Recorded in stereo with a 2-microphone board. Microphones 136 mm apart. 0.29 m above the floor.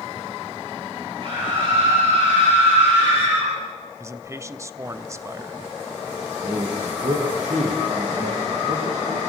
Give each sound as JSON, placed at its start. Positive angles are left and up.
{"t": 1.2, "sound": "a scream", "side_deg": -45, "distance_m": 7.0}
{"t": 4.0, "sound": "a man speaking", "side_deg": -25, "distance_m": 0.9}
{"t": 6.4, "sound": "a man speaking", "side_deg": -80, "distance_m": 6.5}